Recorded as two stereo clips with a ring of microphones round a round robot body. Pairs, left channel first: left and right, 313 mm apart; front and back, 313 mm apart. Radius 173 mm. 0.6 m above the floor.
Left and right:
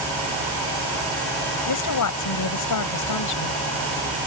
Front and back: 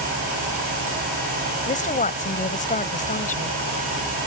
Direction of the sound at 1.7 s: 65° left.